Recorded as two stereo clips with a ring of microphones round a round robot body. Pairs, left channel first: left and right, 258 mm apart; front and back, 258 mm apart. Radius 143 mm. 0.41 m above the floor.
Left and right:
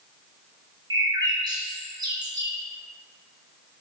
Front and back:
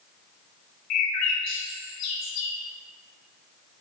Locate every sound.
0.9 s a bird: 15° right, 2.5 m